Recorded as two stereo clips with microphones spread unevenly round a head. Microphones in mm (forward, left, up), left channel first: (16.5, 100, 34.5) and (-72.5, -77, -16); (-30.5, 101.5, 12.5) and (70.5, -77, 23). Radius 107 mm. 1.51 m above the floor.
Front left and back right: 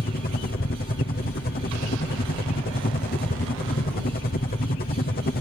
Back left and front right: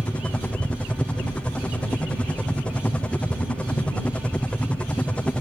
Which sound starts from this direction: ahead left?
A helicopter, at 0.0 s.